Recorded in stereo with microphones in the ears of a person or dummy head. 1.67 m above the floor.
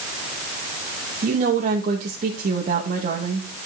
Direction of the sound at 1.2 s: 45° right (ahead or behind).